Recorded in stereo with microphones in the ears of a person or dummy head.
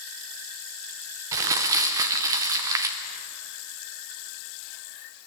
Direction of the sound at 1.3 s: 25° right (ahead or behind).